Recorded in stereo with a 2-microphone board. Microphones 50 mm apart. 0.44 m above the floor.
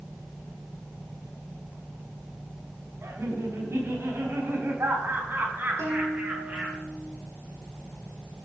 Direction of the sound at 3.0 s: 70° right (ahead or behind).